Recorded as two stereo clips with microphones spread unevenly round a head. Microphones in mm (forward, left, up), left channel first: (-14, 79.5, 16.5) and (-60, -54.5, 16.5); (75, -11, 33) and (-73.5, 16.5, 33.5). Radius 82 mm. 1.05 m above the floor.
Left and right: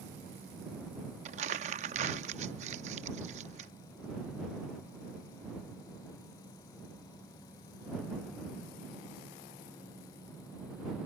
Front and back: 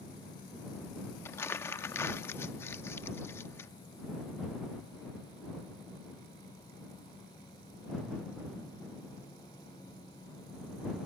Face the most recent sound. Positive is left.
turn(degrees=-80)